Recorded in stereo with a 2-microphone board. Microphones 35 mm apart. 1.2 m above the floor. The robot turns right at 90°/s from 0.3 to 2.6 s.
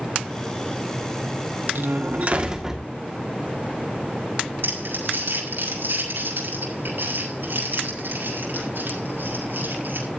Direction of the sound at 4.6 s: 80° right.